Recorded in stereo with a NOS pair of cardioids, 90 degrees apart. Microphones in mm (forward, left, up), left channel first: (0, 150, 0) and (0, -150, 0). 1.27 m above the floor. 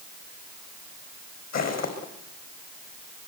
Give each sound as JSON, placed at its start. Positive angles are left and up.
{"t": 1.5, "sound": "footsteps", "azimuth_deg": 60, "distance_m": 5.0}